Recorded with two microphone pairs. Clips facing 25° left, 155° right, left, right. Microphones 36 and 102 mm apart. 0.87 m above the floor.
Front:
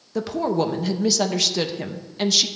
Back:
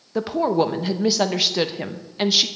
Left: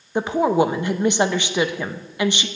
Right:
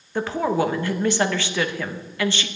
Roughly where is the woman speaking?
Behind left.